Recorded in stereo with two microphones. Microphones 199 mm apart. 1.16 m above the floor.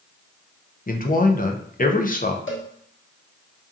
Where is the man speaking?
45° left (ahead or behind), 0.6 m.